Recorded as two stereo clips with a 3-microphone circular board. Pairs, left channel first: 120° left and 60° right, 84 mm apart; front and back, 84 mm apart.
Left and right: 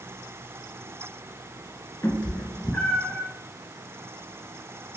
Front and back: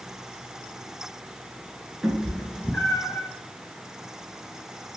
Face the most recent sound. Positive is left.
turn(degrees=30)